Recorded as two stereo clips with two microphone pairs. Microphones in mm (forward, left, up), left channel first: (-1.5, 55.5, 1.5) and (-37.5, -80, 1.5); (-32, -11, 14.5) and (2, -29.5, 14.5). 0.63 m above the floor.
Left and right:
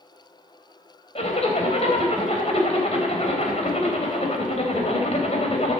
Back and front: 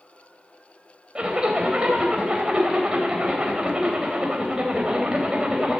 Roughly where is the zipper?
Ahead left.